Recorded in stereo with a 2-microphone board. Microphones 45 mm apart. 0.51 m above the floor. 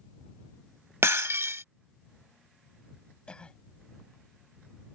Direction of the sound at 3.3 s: 20° left (ahead or behind).